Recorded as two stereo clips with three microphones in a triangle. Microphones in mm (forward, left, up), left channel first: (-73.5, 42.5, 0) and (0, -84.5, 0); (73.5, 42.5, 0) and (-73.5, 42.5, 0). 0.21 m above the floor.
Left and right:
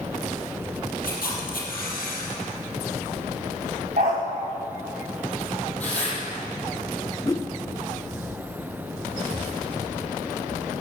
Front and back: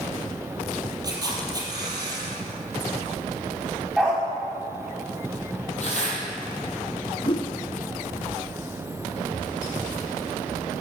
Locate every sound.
1.0 s a camera shutter: 115° left, 4.5 m
4.0 s a dog barking: 95° right, 6.5 m
5.8 s tearing paper: 40° left, 6.5 m
7.2 s a whoosh: 55° left, 0.5 m